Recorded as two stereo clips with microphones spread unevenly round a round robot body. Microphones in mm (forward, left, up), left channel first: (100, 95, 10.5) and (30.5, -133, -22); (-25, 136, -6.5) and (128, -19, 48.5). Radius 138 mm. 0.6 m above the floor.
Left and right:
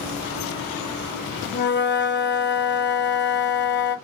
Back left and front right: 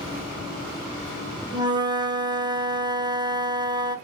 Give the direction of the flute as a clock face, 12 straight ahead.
11 o'clock.